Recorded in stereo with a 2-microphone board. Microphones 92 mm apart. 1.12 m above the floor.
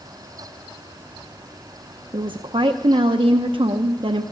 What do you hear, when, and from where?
2.1 s a woman speaking: 65° right (ahead or behind), 0.7 m